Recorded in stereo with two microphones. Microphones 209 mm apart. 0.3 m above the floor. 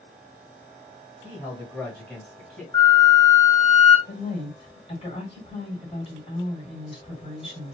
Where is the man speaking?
5° right (ahead or behind), 1.6 m; by 2.6 s centre (ahead or behind), 1.9 m.